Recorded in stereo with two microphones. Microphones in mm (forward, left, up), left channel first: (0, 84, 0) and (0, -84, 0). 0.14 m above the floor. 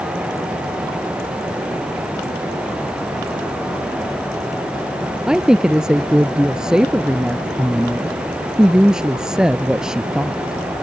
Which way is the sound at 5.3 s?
5° right (ahead or behind).